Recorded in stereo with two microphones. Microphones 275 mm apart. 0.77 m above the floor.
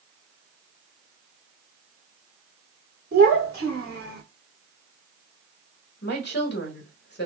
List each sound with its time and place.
3.1 s a child speaking: 45° right (ahead or behind), 2 m; by 4.2 s 70° right (ahead or behind), 1.6 m
6.0 s a woman speaking: 50° left (ahead or behind), 1.4 m